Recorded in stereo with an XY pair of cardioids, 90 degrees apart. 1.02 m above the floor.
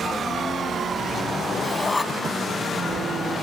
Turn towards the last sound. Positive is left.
turn(degrees=30)